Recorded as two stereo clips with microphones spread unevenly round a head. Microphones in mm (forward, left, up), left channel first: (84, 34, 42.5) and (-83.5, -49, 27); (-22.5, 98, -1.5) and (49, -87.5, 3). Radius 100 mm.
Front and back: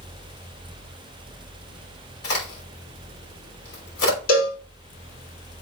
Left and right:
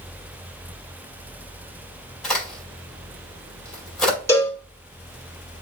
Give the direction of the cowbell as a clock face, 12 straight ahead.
11 o'clock.